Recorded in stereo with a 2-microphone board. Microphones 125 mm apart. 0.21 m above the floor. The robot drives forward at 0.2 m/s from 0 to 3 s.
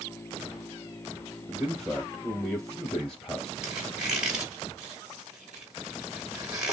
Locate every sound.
1.5 s a man speaking: 5° left (ahead or behind), 3 m; by 3.5 s centre (ahead or behind), 3.5 m
3.6 s a squeak: 5° right (ahead or behind), 2 m